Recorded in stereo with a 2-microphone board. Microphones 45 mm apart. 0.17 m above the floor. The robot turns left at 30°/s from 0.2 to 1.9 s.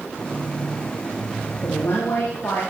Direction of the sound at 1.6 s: 55° left (ahead or behind).